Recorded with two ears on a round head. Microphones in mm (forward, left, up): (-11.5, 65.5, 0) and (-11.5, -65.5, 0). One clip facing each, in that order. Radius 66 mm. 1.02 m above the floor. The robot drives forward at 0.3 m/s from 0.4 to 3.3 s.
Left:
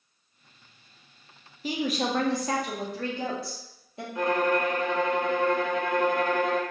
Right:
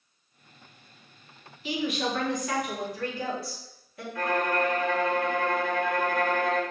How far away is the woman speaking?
About 0.5 m.